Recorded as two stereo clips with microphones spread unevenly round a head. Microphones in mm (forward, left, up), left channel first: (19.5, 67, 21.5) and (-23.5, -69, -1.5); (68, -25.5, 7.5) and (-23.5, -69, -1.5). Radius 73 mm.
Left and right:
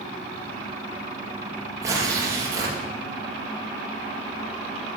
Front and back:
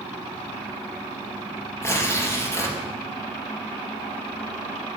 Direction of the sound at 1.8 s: 35° right.